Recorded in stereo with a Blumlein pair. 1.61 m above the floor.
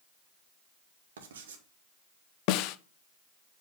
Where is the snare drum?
40° left, 0.6 m.